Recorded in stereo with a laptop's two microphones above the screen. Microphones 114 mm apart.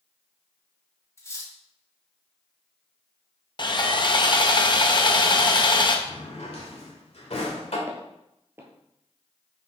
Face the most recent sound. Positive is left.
turn(degrees=-25)  # may be behind; listen again after turning